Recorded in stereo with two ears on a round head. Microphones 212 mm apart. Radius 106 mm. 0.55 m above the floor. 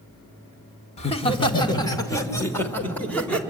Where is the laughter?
25° left (ahead or behind), 1.7 m; by 3.4 s 5° left (ahead or behind), 3 m.